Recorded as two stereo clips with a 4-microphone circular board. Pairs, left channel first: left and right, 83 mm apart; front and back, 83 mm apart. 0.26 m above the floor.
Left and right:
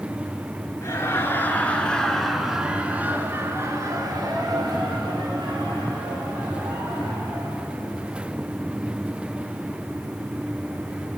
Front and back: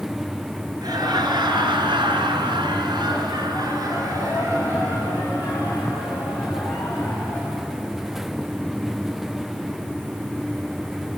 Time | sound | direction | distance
0.8 | laughter | 145° left | 3 m